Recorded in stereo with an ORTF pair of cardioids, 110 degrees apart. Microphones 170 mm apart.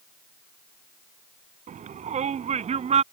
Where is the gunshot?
I don't hear a gunshot.